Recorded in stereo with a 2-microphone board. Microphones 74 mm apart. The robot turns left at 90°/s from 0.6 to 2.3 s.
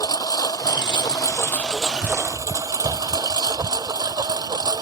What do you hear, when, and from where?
0.0 s a lawn mower: 60° left (ahead or behind); by 4.8 s 70° right (ahead or behind)